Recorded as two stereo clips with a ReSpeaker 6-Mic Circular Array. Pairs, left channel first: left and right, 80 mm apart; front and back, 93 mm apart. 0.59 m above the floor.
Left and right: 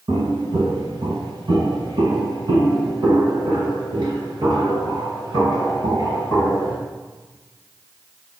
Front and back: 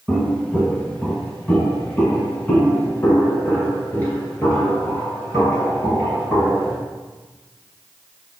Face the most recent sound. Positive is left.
turn(degrees=-60)